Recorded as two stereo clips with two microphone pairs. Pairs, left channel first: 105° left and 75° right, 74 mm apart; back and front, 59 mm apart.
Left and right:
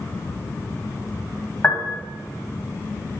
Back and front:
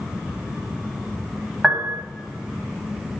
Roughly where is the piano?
Left.